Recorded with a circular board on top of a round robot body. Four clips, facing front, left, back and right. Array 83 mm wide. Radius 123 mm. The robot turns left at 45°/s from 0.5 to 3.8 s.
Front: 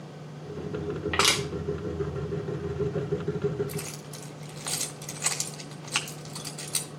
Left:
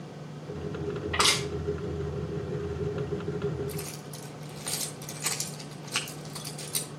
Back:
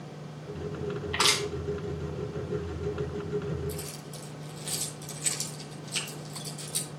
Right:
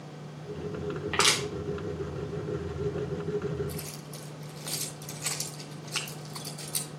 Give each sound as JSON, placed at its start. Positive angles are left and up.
{"t": 1.1, "sound": "crushing", "azimuth_deg": -30, "distance_m": 2.5}
{"t": 3.7, "sound": "keys jangling", "azimuth_deg": 20, "distance_m": 1.3}